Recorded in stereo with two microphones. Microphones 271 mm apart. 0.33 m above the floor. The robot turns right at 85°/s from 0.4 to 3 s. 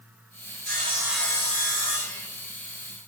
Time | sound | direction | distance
0.7 | sawing | 45° right | 3 m